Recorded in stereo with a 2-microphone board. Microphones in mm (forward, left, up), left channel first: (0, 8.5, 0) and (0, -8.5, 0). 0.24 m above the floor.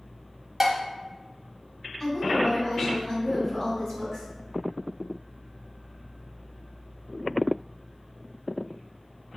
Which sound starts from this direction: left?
A woman speaking, at 2.0 s.